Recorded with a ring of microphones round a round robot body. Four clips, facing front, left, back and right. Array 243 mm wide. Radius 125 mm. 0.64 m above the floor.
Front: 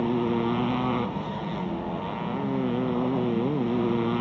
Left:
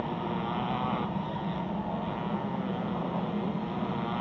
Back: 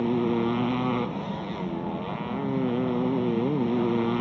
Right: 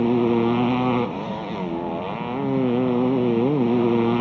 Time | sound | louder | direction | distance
0.0 | a motorcycle | right 14 dB, even | 95° right | ?